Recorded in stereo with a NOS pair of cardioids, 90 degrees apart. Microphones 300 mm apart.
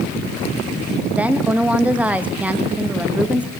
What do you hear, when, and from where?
1.1 s a woman speaking: 5° right, 0.9 m